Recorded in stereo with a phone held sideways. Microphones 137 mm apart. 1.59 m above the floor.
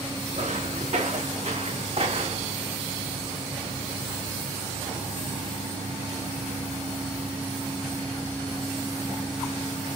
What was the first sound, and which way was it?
Footsteps, 65° right (ahead or behind).